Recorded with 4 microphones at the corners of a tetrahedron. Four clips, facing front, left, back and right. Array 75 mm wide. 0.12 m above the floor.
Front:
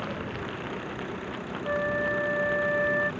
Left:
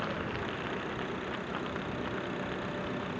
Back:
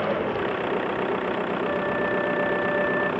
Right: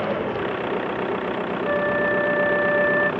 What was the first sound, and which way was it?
An engine running, 135° right.